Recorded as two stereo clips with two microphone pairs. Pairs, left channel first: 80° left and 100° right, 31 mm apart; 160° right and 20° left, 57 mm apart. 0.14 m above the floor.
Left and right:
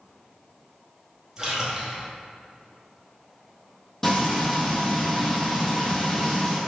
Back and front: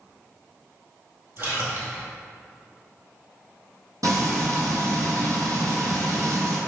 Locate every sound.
1.4 s a splash: 25° right, 2.0 m
4.0 s frying: 10° left, 1.8 m